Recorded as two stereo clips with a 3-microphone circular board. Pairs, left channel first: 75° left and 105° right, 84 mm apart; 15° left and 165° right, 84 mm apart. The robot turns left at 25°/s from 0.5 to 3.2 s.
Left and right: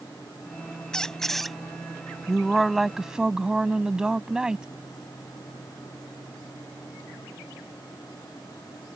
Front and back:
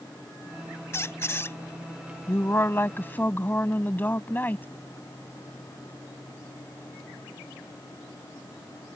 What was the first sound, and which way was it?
A squeak, straight ahead.